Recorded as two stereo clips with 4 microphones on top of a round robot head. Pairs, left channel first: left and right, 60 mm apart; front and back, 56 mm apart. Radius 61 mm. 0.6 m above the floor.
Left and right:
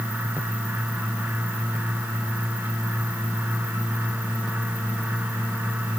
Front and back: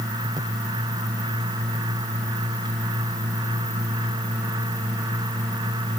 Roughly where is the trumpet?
No trumpet in this recording.